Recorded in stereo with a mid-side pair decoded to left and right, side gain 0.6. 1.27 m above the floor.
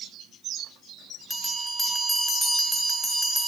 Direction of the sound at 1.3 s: 5° left.